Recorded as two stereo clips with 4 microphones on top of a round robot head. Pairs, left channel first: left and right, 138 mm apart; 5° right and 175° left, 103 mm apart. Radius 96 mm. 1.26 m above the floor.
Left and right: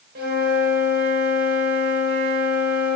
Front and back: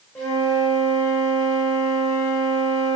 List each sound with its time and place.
0.1 s a flute: 85° right, 4 m